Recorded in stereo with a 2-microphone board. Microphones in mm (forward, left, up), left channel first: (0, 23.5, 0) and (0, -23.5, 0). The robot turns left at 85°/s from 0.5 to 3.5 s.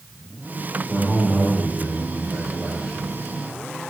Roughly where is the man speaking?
Ahead.